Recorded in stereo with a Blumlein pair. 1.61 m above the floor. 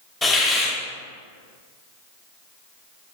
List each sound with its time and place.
0.2 s a hiss: 15° left, 3.5 m